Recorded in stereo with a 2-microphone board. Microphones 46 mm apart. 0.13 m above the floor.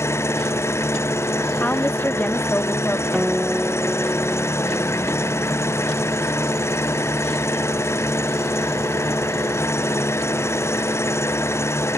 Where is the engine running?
80° left.